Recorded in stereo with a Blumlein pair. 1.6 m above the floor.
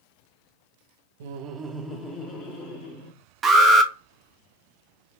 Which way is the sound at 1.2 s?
55° right.